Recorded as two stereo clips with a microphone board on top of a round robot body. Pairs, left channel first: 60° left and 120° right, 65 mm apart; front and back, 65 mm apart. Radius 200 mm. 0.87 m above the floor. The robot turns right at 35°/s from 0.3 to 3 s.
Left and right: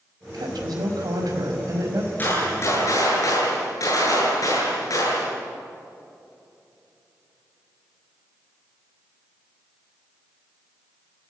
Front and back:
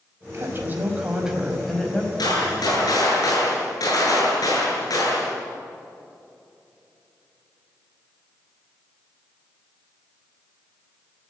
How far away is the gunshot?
About 8.5 m.